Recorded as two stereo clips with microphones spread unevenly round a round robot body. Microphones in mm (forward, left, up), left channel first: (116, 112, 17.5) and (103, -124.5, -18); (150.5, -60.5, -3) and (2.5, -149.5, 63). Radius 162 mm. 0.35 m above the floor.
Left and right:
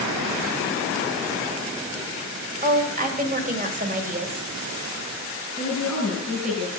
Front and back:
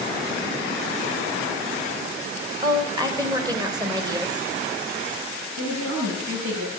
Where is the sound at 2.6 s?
65° right, 1.8 m.